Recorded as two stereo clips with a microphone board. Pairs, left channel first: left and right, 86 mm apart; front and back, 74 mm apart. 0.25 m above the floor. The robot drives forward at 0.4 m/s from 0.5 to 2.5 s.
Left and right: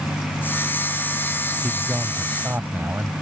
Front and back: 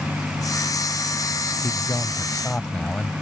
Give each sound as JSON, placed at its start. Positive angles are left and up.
{"t": 1.6, "sound": "a man speaking", "azimuth_deg": -35}